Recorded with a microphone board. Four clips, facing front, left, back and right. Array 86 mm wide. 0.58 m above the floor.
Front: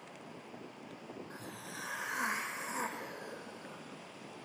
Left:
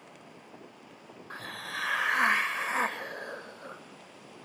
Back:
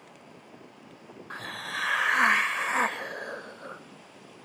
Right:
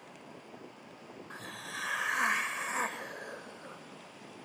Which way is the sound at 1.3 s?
160° left.